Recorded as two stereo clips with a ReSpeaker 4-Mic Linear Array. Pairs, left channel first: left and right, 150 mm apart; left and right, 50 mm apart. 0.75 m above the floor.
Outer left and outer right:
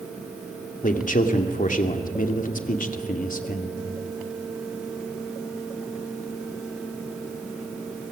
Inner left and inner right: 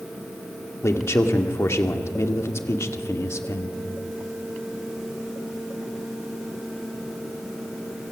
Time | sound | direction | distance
0.8 | a man speaking | 65° left (ahead or behind) | 2 m